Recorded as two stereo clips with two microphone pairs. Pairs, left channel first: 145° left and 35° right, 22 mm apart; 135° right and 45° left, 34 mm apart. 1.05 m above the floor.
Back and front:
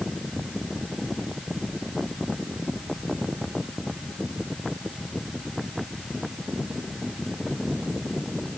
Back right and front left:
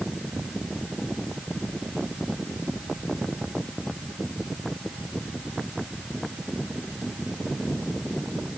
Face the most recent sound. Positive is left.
No sound to turn to.